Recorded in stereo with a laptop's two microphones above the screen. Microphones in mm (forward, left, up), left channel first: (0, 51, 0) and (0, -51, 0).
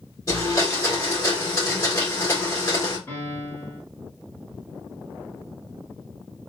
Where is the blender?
30° left (ahead or behind), 1.7 m.